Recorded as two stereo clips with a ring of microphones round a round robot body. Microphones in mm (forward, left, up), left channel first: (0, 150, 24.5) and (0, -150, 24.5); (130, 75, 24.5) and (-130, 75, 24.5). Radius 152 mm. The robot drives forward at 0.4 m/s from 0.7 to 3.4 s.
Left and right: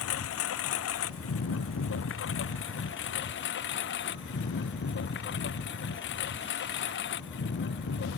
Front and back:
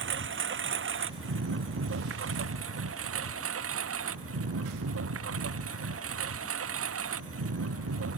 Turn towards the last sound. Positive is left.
turn(degrees=145)